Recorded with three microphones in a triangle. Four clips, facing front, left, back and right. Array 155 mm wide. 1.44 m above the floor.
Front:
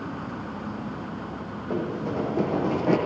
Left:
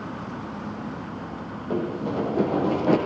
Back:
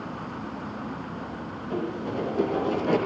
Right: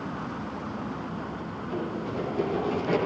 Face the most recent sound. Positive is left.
turn(degrees=55)